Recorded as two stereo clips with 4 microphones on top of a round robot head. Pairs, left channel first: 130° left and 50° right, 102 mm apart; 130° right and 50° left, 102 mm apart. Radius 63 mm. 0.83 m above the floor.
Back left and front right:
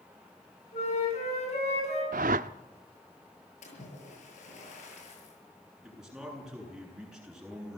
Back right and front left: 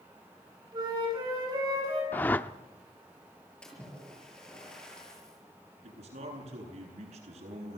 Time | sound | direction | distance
0.7 | a flute | 105° left | 9 m
2.1 | a whoosh | 55° right | 0.7 m
3.6 | a splash | 150° left | 8 m
5.8 | a man speaking | 35° left | 9.5 m